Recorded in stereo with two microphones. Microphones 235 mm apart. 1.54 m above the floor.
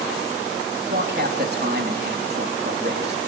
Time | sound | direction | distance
0.9 | a man speaking | 45° right (ahead or behind) | 3.5 m